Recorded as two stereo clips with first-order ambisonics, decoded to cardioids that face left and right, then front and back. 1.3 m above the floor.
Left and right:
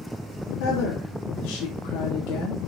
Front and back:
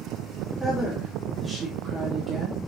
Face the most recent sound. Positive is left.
turn(degrees=100)